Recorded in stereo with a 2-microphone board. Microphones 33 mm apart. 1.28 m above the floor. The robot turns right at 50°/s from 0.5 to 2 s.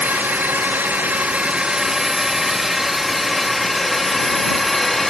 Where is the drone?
60° right (ahead or behind); by 5.1 s 5° left (ahead or behind).